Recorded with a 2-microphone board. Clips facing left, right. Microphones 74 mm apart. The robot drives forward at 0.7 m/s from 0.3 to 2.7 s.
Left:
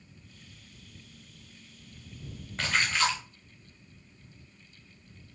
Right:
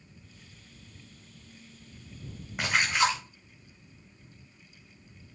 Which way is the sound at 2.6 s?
15° right (ahead or behind).